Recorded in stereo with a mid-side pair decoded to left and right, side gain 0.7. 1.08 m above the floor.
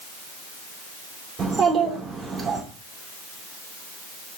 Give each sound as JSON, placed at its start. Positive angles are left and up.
{"t": 1.4, "sound": "a child speaking", "azimuth_deg": -35, "distance_m": 3.0}